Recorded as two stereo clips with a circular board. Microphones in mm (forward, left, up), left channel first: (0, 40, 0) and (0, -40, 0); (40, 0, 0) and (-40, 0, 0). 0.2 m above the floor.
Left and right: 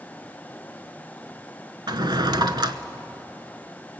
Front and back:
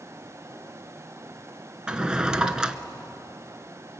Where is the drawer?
100° right, 0.9 m.